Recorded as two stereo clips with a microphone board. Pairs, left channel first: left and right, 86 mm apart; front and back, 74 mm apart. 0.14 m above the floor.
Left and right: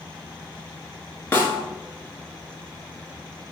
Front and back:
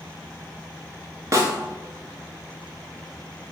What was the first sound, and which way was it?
A snare drum, 155° left.